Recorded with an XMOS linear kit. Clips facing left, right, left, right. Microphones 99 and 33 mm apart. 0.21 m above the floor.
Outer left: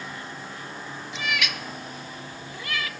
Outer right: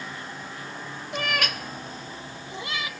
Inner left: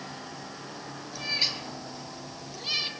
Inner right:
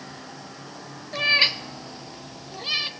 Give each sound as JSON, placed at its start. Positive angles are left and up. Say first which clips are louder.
{"t": 1.1, "sound": "a cat meowing", "louder": "outer right 2 dB, inner right 10 dB", "side_deg": -55, "distance_m": 0.8}